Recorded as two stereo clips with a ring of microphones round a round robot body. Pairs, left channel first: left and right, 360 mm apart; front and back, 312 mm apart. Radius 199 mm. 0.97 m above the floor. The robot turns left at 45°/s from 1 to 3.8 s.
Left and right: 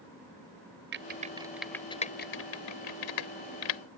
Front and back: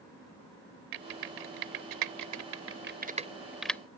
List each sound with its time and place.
0.9 s typing on a keyboard: 150° right; by 3.8 s 85° left